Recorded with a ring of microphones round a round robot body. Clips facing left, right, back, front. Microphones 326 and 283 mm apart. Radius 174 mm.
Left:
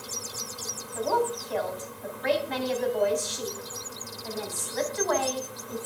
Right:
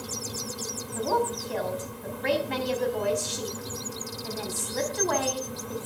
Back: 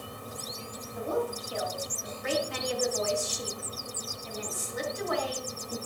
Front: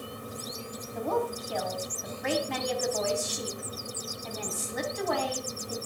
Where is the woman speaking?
35° right, 3.5 m.